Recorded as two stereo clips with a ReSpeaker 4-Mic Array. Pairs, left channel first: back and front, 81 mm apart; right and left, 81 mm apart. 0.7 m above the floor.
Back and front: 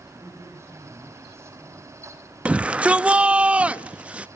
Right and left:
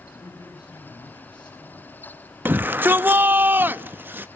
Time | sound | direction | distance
0.1 | a man speaking | 60° right | 6 m
2.5 | a shout | 55° left | 0.5 m